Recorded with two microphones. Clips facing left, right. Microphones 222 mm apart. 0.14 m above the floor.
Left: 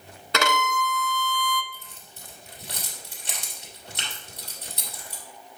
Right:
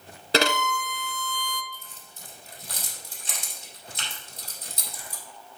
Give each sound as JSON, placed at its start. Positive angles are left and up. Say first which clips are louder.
{"t": 0.3, "sound": "a violin", "louder": "right 2 dB", "side_deg": -35, "distance_m": 0.5}
{"t": 1.7, "sound": "keys jangling", "louder": "left 1 dB", "side_deg": 65, "distance_m": 2.5}